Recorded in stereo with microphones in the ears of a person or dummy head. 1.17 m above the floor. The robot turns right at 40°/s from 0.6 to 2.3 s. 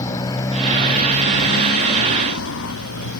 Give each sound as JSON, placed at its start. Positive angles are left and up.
{"t": 0.0, "sound": "a motorcycle", "side_deg": 20}